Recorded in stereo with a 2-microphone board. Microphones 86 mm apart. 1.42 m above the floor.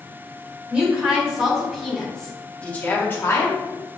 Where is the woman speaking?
10° right (ahead or behind), 2 m; by 3.6 s 40° left (ahead or behind), 1.1 m.